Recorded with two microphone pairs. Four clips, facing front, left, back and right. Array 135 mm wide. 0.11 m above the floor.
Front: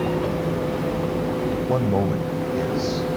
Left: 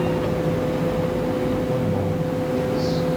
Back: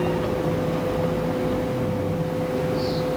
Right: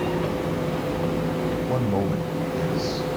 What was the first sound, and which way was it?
A man speaking, 15° right.